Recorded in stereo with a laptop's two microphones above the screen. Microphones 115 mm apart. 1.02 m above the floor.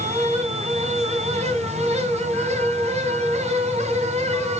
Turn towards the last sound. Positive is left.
turn(degrees=-70)  # may be behind; listen again after turning